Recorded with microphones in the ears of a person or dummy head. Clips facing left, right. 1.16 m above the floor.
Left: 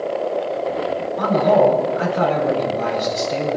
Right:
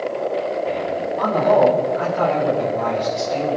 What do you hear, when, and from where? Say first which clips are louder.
1.2 s a man speaking: left 1 dB; 35° left (ahead or behind), 9 m